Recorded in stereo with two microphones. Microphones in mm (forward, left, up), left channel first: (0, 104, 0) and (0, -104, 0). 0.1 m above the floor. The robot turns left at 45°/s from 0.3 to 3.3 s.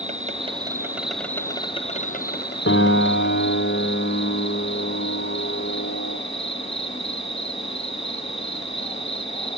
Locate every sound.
0.0 s an insect: 140° right, 0.9 m; by 9.6 s 85° left, 0.9 m
2.7 s a piano: 85° left, 3.5 m; by 6.2 s 60° left (ahead or behind), 3.5 m